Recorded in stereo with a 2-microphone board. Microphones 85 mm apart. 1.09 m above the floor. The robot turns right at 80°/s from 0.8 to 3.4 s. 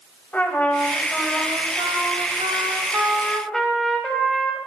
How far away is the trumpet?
About 5.5 m.